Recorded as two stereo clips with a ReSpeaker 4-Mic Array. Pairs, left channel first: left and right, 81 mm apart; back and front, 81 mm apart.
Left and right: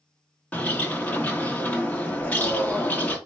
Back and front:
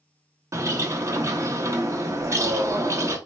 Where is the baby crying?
No baby crying in this recording.